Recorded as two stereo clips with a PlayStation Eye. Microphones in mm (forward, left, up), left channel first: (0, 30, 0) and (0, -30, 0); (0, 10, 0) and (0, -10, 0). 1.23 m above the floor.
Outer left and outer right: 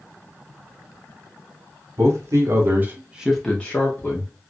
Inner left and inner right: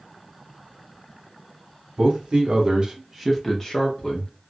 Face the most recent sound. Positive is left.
turn(degrees=45)  # may be behind; listen again after turning